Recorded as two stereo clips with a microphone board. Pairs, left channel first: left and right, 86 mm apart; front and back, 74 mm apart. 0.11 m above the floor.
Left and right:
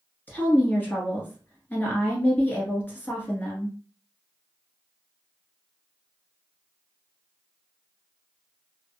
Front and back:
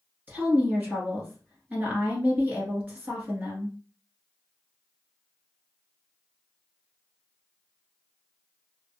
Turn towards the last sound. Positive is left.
turn(degrees=140)